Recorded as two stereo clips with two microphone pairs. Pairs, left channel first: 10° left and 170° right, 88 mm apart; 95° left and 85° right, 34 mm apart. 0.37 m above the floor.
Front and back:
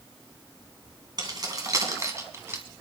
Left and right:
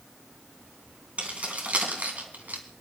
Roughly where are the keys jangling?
Behind right.